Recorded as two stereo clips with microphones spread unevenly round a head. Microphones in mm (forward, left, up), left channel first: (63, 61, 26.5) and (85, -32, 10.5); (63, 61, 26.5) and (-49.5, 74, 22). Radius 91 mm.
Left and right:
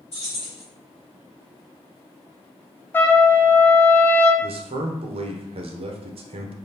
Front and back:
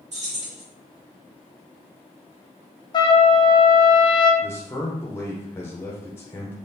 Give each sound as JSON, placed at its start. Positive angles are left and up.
{"t": 0.1, "sound": "keys jangling", "azimuth_deg": 155, "distance_m": 1.6}
{"t": 2.9, "sound": "a trumpet", "azimuth_deg": 40, "distance_m": 0.6}
{"t": 4.4, "sound": "a man speaking", "azimuth_deg": -80, "distance_m": 0.6}